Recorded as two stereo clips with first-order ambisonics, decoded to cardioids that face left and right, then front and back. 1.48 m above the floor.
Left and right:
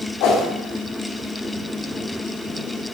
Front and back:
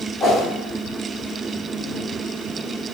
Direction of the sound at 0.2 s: 65° left.